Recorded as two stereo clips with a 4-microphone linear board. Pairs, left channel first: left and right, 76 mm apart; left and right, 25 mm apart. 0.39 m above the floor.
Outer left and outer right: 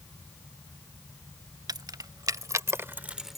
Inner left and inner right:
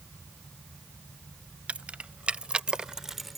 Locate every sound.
1.7 s keys jangling: 60° right (ahead or behind); by 3.4 s centre (ahead or behind)